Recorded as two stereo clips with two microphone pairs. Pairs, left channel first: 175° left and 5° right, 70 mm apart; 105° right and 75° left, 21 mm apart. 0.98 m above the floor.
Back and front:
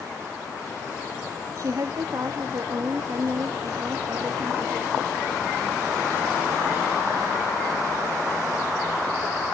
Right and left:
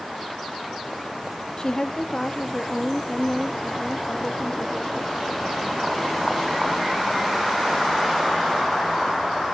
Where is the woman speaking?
45° right, 1.1 m.